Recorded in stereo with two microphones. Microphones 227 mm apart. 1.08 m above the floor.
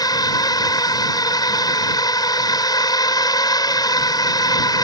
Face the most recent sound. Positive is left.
turn(degrees=15)  # may be behind; listen again after turning